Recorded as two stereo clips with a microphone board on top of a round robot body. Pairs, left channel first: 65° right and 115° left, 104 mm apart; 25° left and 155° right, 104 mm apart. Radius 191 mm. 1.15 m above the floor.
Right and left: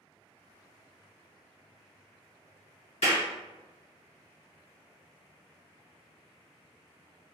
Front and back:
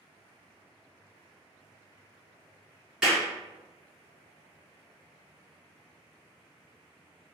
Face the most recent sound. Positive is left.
turn(degrees=-75)